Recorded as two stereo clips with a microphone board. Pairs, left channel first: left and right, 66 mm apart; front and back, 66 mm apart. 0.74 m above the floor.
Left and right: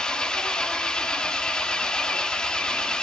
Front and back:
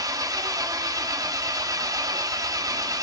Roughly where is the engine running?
Behind.